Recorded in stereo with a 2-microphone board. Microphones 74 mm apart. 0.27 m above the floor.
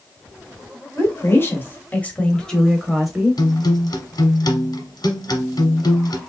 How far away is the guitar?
About 0.9 m.